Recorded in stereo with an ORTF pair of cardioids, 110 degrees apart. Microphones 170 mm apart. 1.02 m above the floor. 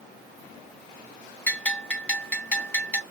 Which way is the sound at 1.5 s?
10° left.